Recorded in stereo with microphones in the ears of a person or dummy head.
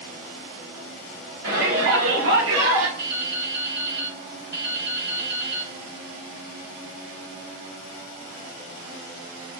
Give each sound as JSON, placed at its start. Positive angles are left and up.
{"t": 1.4, "sound": "a shout", "side_deg": -55, "distance_m": 1.1}
{"t": 3.0, "sound": "dripping", "side_deg": -60, "distance_m": 1.4}